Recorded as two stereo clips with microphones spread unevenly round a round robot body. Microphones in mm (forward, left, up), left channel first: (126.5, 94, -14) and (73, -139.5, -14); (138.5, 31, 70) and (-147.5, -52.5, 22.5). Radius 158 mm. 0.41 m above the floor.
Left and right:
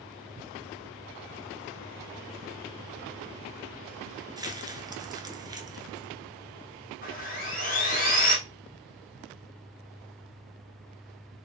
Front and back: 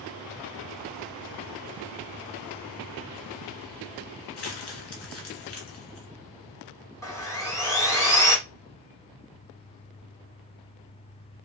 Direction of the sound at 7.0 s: 100° left.